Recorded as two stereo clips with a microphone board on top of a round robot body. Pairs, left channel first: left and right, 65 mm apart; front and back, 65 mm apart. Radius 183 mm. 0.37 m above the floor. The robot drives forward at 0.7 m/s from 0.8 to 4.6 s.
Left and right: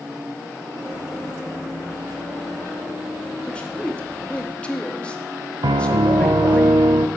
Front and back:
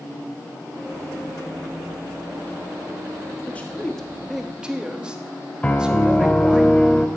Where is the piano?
75° right, 0.8 m.